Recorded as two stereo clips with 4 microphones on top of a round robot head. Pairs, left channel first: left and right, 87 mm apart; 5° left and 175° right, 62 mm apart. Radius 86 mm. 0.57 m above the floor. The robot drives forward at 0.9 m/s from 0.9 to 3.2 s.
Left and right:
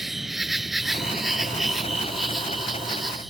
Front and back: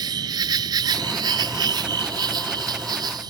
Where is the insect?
Straight behind.